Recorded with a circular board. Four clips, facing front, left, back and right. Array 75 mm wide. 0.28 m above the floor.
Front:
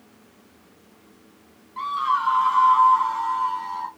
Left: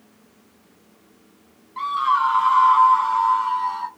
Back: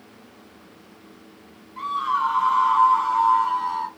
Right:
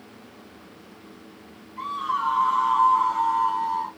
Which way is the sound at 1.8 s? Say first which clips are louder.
Left 7 dB, even; 80° left.